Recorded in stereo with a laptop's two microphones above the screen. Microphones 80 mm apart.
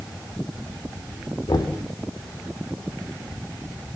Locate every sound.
1.5 s knocking: 60° left (ahead or behind), 3 m